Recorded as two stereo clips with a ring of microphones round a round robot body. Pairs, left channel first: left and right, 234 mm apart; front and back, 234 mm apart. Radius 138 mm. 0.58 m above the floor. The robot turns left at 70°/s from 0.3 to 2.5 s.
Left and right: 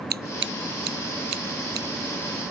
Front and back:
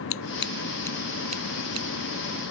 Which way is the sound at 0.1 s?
40° right.